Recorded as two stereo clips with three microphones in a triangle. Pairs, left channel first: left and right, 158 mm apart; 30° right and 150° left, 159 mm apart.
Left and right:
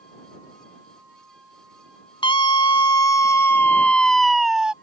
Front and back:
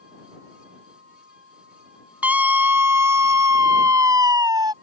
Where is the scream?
80° left; by 4.7 s 170° right.